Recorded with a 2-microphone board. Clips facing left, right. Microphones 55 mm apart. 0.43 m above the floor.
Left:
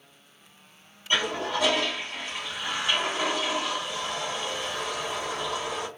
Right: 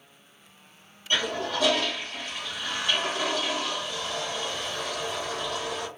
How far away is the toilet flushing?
About 1.4 m.